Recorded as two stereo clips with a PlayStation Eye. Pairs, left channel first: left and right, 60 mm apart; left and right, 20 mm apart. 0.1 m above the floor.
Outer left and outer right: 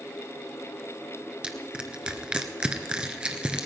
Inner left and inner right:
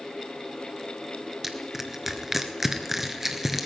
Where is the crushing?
15° right (ahead or behind), 1.3 m.